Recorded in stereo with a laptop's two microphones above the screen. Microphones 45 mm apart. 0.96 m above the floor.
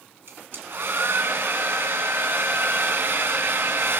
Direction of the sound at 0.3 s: 60° right (ahead or behind).